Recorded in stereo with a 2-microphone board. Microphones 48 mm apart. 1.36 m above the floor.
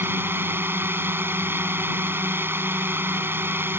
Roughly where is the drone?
Right.